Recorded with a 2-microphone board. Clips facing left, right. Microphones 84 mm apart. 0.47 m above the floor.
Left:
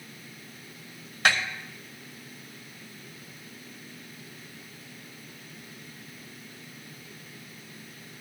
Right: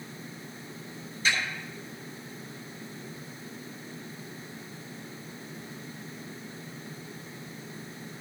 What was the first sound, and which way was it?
A snare drum, 75° left (ahead or behind).